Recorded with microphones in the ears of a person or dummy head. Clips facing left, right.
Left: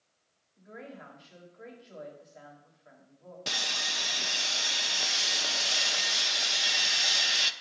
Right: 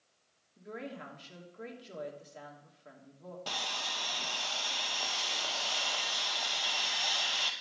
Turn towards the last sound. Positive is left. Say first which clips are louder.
# left 3 dB
turn(degrees=30)  # may be behind; listen again after turning